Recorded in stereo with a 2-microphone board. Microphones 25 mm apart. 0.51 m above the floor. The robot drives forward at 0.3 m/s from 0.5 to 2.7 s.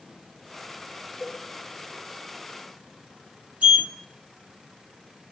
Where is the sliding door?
70° right (ahead or behind), 0.9 m.